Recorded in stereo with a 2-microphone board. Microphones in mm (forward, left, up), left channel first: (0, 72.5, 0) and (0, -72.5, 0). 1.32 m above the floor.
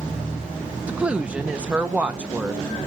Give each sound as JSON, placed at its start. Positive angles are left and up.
{"t": 0.9, "sound": "a woman speaking", "side_deg": -10, "distance_m": 1.0}